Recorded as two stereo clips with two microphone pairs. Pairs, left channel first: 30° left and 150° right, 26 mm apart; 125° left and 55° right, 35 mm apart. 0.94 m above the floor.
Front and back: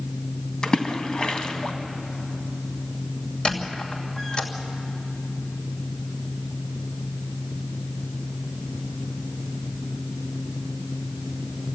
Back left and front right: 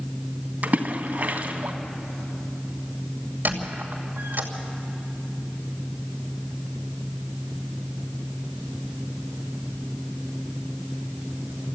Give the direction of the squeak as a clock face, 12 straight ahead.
1 o'clock.